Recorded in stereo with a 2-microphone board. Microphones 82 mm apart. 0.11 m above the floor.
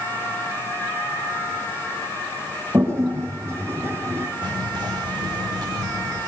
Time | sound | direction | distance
2.7 | a toilet flushing | 35° right (ahead or behind) | 5 m
4.4 | whispering | 55° right (ahead or behind) | 9.5 m